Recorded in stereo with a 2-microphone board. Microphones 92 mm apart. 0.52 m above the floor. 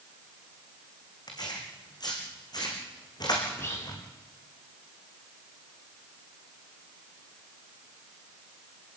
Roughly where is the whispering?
Left.